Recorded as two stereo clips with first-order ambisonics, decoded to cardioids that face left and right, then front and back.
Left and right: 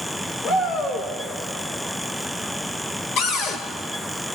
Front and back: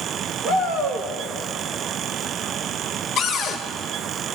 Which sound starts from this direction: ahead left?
A cupboard door, at 3.2 s.